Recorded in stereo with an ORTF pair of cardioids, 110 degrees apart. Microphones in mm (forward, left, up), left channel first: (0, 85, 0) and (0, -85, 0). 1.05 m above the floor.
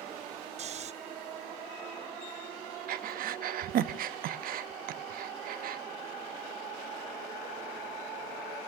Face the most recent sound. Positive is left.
turn(degrees=-60)